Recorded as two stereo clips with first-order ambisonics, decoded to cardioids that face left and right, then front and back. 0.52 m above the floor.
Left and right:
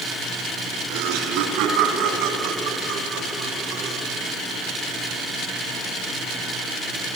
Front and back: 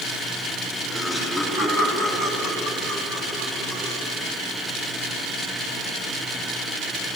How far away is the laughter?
About 6.5 m.